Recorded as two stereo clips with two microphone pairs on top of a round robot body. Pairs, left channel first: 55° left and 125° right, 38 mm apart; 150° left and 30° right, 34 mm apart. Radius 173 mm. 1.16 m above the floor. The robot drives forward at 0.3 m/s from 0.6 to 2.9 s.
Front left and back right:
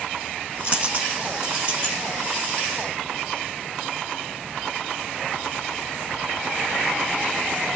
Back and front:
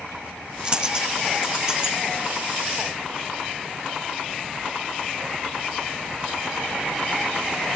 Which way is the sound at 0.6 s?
95° right.